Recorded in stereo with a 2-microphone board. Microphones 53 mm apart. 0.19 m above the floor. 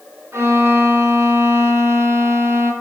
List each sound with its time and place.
0.3 s a violin: 55° right (ahead or behind), 1.1 m